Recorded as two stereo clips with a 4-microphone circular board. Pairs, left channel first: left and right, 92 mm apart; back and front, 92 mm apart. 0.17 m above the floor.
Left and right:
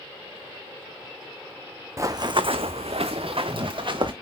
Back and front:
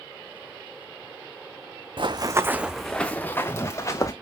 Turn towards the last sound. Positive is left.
turn(degrees=-125)